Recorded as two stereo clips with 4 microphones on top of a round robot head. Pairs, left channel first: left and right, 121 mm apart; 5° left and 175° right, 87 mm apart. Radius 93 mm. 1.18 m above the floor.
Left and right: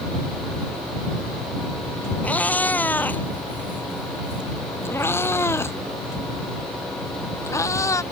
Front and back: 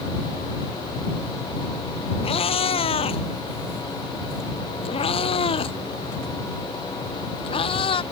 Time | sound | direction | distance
2.2 | a cat meowing | 10° left | ?